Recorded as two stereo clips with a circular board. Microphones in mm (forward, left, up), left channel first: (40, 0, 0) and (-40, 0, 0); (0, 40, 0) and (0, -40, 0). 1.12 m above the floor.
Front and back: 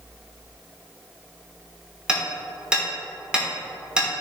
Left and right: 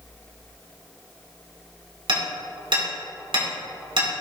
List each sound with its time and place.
2.1 s hammering: 105° right, 3.5 m